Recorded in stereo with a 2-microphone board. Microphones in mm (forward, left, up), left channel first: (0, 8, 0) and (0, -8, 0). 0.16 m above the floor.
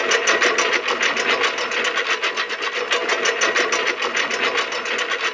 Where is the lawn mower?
5° left (ahead or behind); by 5.3 s 10° left (ahead or behind).